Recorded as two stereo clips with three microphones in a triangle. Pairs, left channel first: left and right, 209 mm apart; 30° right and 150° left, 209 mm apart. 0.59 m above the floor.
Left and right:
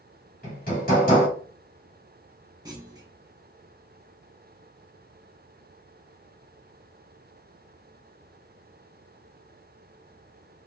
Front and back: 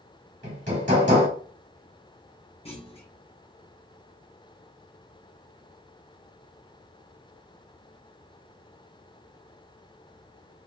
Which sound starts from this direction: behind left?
Hammering, at 0.4 s.